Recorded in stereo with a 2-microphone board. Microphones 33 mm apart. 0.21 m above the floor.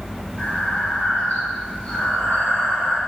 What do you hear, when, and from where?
0.4 s breathing: 40° left (ahead or behind), 2 m